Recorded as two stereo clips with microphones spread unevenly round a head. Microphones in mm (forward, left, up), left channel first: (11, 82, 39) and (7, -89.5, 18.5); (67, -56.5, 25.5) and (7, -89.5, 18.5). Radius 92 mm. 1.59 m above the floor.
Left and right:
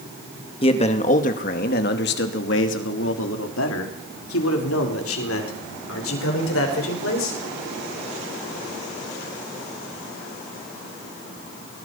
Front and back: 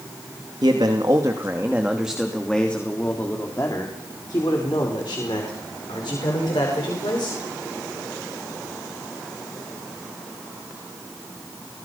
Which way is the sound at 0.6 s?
150° left.